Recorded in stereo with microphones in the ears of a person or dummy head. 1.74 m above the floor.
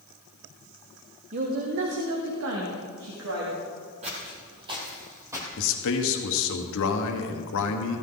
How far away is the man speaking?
About 1.3 m.